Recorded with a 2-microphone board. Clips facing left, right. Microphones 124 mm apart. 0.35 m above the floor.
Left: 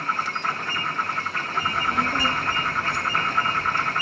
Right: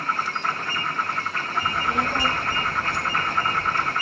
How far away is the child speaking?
About 0.9 m.